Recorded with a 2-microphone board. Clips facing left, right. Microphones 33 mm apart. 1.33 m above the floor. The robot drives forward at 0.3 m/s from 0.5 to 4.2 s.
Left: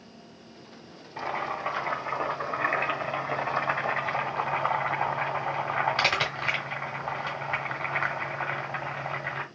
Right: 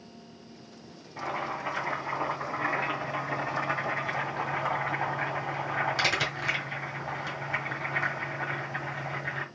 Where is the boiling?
25° left (ahead or behind), 1.6 m; by 9.4 s 30° left (ahead or behind), 1.2 m.